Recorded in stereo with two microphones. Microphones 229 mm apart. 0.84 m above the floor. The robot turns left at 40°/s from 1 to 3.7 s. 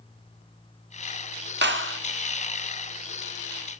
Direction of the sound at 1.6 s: 45° right (ahead or behind).